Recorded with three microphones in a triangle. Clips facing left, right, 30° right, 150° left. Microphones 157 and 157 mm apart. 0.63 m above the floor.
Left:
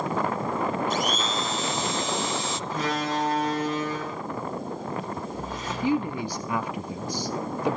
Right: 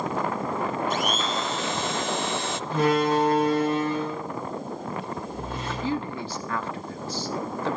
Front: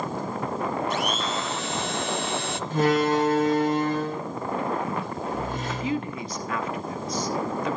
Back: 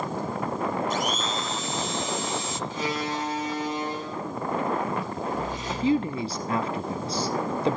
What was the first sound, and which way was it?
A blender, 55° right.